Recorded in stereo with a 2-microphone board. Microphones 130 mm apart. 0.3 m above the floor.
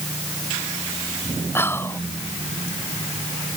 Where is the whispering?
20° left (ahead or behind).